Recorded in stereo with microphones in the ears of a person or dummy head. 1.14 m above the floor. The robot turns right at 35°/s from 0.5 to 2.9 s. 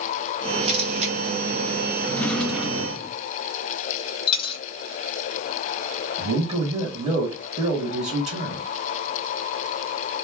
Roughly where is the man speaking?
Right.